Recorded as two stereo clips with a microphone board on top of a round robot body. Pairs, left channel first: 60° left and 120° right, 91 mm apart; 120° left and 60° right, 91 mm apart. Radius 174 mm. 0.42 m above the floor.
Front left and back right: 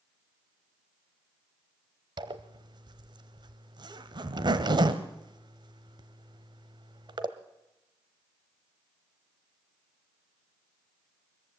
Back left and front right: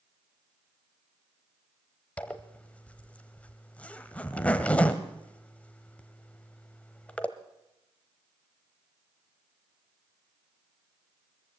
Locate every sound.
2.2 s a zipper: 160° right, 1.0 m